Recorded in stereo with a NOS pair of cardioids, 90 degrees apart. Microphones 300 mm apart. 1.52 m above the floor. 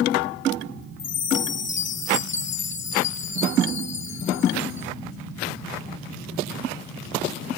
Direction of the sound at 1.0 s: 40° left.